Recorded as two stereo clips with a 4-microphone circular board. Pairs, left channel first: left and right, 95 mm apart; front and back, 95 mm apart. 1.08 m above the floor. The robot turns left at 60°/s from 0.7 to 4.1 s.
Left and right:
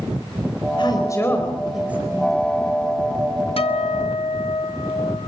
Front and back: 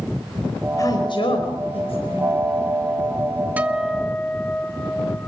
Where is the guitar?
105° left, 1.1 m; by 5.3 s 75° left, 1.1 m.